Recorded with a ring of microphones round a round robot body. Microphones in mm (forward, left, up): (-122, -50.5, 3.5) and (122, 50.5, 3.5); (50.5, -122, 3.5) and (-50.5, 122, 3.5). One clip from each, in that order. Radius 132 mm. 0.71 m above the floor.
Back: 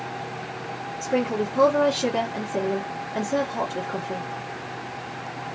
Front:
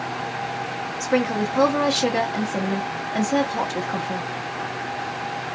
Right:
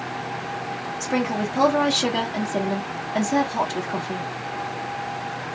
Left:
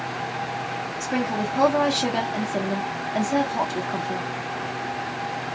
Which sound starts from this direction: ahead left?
A woman speaking, at 1.0 s.